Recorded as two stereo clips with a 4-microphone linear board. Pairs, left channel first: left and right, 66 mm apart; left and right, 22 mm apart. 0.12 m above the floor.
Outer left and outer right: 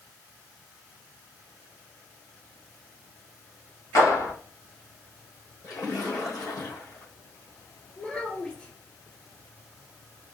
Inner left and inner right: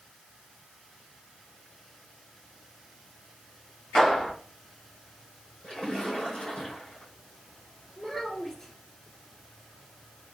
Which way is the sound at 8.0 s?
15° left (ahead or behind).